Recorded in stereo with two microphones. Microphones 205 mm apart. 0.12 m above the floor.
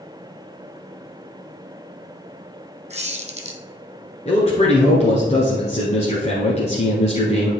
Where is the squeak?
35° right (ahead or behind), 1.1 m.